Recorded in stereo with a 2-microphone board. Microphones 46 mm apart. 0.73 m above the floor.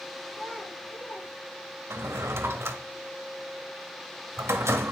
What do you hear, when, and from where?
0.3 s a child speaking: 15° left (ahead or behind), 7 m
1.9 s a drawer: 70° right (ahead or behind), 1.2 m